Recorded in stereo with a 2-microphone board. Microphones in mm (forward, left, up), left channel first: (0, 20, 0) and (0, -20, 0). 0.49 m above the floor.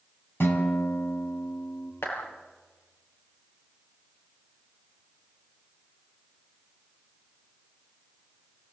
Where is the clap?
80° left, 7.5 m.